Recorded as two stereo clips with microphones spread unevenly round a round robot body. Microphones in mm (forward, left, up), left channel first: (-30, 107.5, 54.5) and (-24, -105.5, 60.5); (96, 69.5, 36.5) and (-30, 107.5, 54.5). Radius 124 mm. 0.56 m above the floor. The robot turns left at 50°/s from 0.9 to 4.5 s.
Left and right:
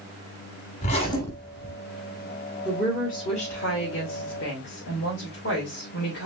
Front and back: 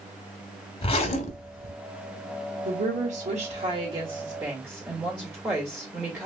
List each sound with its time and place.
0.8 s a zipper: 30° left, 0.9 m; by 1.7 s 10° right, 0.9 m
2.6 s a woman speaking: 175° left, 1.6 m; by 6.3 s 85° left, 1.6 m